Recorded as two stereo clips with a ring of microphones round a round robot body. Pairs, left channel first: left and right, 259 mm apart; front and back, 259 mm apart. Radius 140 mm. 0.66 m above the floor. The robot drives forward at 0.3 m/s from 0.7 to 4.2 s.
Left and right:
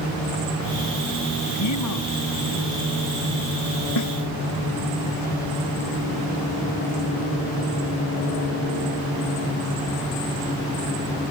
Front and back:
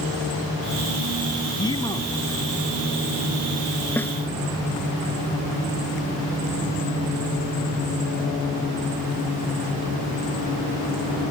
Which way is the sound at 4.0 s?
85° left.